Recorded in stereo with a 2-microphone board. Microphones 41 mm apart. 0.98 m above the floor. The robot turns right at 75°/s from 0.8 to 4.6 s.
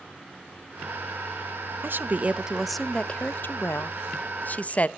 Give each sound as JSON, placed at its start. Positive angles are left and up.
{"t": 1.8, "sound": "a woman speaking", "azimuth_deg": -65, "distance_m": 0.6}